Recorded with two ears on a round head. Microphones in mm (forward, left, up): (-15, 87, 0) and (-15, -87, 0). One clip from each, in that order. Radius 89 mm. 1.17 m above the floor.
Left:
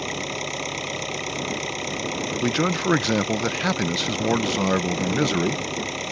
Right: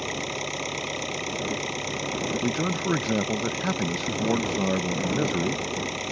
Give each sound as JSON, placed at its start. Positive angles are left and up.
{"t": 0.0, "sound": "an engine running", "side_deg": 5}
{"t": 2.4, "sound": "a man speaking", "side_deg": 70}